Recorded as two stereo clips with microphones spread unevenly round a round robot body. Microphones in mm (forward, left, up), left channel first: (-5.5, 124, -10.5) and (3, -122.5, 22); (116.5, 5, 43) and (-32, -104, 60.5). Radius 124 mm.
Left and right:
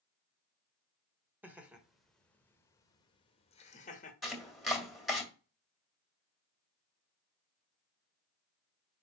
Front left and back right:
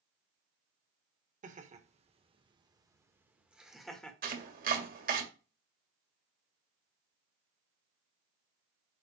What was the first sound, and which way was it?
Laughter, 175° right.